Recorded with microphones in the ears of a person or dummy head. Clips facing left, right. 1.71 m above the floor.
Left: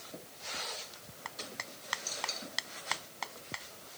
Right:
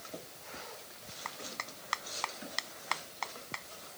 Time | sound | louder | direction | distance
1.2 | a clap | right 1 dB | 5° left (ahead or behind) | ?